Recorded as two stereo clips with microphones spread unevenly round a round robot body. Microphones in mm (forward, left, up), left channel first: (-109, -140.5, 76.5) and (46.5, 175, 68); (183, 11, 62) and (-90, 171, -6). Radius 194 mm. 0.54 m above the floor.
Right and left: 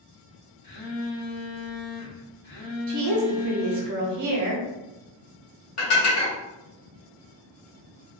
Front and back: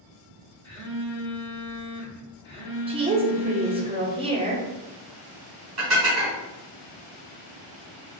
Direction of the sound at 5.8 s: 165° right.